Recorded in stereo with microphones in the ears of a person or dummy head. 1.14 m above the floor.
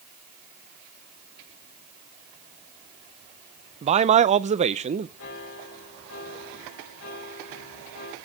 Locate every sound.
3.8 s a man speaking: 35° right (ahead or behind), 0.6 m
5.2 s a piano: 80° left, 4.5 m